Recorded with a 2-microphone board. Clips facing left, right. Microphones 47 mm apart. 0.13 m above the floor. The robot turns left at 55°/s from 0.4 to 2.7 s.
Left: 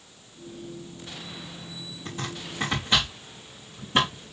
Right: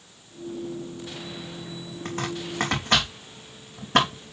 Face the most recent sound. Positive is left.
turn(degrees=-75)  # may be behind; listen again after turning